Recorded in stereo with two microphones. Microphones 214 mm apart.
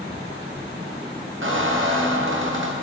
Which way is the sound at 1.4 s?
65° right (ahead or behind).